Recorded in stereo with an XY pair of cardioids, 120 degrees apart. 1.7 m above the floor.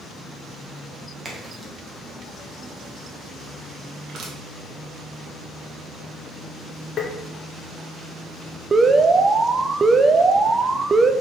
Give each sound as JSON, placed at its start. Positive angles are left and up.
{"t": 1.2, "sound": "a crack", "azimuth_deg": -25, "distance_m": 1.9}
{"t": 4.1, "sound": "crushing", "azimuth_deg": -55, "distance_m": 1.8}
{"t": 7.0, "sound": "tapping", "azimuth_deg": 50, "distance_m": 1.2}
{"t": 8.7, "sound": "an alarm", "azimuth_deg": -25, "distance_m": 0.6}